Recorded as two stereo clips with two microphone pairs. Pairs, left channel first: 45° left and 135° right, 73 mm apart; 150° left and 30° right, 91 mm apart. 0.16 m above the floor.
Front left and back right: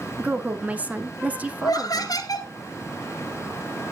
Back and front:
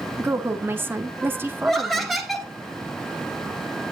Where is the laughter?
60° left, 2 m.